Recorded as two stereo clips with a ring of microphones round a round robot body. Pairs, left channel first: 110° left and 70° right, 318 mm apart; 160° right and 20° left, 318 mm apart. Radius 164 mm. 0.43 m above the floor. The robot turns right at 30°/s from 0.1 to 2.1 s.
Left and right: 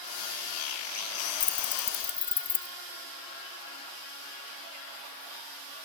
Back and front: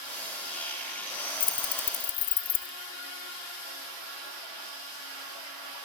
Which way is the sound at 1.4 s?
155° left.